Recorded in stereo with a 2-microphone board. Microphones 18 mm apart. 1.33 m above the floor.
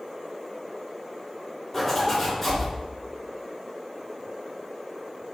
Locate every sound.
1.7 s a zipper: 20° left (ahead or behind), 2.5 m